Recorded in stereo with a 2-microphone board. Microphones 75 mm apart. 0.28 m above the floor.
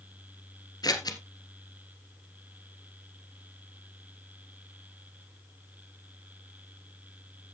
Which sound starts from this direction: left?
Scissors, at 0.8 s.